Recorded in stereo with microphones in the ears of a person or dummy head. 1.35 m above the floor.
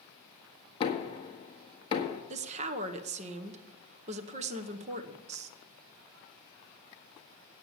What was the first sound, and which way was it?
Knocking, 35° left (ahead or behind).